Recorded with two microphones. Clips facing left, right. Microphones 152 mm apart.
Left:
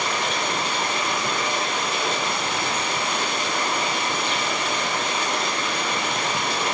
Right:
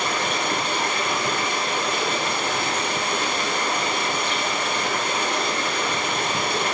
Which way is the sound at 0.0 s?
60° right (ahead or behind).